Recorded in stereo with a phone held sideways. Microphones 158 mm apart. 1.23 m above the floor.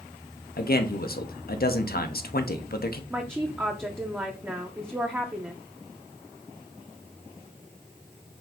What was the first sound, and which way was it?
A man speaking, 65° left (ahead or behind).